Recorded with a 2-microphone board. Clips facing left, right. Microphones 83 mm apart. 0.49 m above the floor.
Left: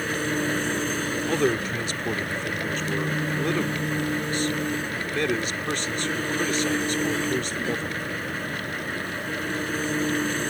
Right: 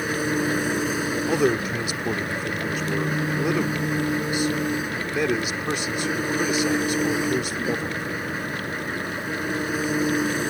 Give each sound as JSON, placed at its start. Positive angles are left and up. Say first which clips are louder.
{"t": 0.0, "sound": "an engine running", "louder": "right 2 dB", "side_deg": -10}
{"t": 1.3, "sound": "a man speaking", "louder": "right 2 dB", "side_deg": -10}